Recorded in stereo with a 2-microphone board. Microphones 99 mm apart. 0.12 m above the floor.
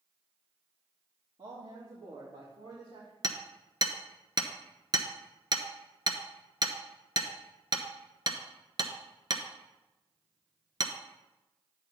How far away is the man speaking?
About 3 m.